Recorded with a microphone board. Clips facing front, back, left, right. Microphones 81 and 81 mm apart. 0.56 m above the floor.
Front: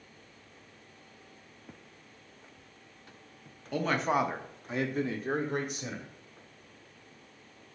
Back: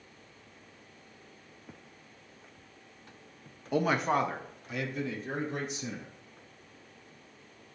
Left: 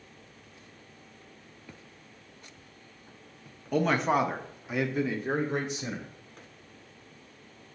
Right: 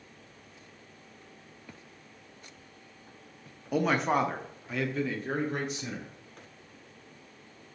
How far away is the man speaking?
About 0.7 m.